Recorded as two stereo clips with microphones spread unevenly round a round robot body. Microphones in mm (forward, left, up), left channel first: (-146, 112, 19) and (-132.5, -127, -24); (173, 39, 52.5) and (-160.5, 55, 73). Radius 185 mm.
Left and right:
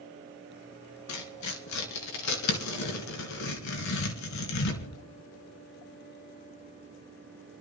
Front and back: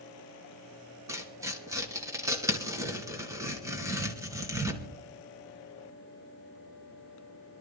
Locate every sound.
1.1 s tearing paper: 95° left, 2.5 m